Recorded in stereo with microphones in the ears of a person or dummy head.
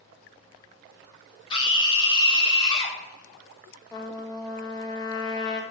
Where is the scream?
30° left (ahead or behind), 3 m.